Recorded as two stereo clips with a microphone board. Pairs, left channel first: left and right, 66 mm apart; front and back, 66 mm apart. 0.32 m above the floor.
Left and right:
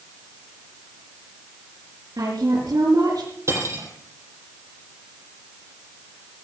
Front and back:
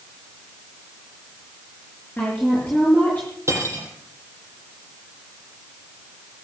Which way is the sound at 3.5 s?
130° right.